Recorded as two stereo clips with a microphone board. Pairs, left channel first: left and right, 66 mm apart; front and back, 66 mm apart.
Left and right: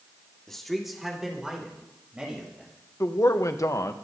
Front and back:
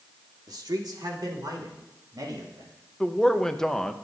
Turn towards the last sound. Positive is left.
turn(degrees=80)